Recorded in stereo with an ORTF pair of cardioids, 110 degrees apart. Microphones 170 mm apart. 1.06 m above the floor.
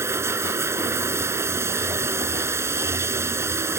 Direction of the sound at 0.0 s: 15° right.